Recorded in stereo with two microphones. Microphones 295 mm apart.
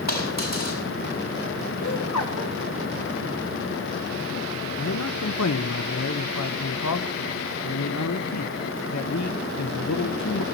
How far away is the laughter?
About 5 m.